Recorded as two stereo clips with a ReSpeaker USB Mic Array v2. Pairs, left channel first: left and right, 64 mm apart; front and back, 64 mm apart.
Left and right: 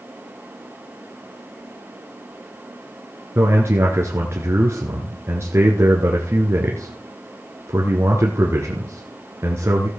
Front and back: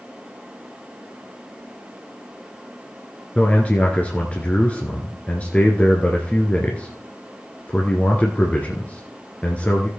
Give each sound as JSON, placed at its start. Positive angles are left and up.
{"t": 3.4, "sound": "a man speaking", "azimuth_deg": -60, "distance_m": 1.9}